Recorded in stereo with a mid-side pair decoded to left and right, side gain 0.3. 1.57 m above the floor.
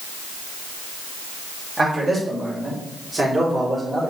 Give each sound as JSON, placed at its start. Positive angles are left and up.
{"t": 1.8, "sound": "a man speaking", "azimuth_deg": -50, "distance_m": 3.0}